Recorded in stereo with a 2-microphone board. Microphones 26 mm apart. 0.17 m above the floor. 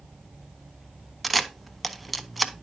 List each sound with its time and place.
1.2 s a camera shutter: 5° right (ahead or behind), 0.7 m